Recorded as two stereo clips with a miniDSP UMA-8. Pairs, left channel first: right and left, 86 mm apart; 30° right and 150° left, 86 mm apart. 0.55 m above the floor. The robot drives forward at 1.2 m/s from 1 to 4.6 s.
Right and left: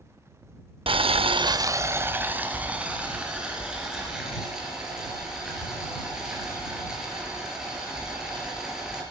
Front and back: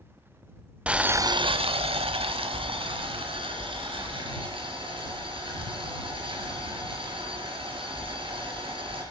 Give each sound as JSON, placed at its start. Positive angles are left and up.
{"t": 0.9, "sound": "boiling", "azimuth_deg": 75, "distance_m": 0.6}